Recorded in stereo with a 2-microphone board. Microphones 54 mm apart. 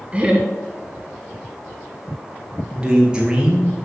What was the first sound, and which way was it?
Laughter, 20° right (ahead or behind).